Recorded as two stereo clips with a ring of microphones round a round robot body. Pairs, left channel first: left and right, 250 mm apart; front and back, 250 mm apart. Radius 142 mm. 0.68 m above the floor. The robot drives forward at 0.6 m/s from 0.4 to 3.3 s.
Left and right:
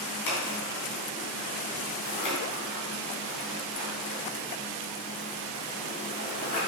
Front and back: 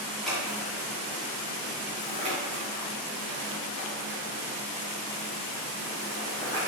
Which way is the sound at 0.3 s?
90° left.